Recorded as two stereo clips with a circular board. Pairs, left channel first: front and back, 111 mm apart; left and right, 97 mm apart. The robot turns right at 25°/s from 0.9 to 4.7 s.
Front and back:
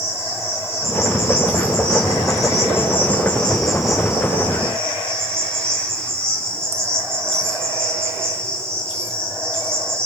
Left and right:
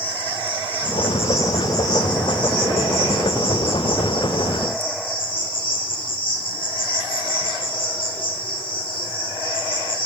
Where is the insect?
20° left, 3.5 m; by 10.1 s 115° left, 3.5 m.